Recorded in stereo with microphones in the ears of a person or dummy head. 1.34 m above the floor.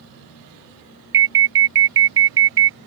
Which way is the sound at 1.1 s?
20° right (ahead or behind).